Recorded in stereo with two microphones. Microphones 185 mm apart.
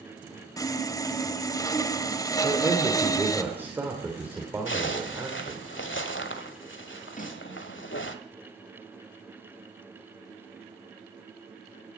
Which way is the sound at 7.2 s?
45° left (ahead or behind).